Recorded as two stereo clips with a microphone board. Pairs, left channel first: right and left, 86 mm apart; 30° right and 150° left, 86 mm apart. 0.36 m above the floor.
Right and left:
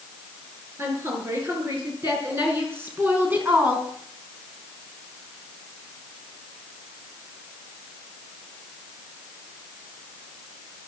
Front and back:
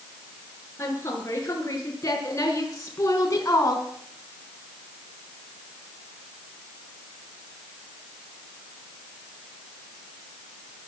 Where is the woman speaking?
30° left, 7.5 m; by 3.9 s 20° left, 3.5 m.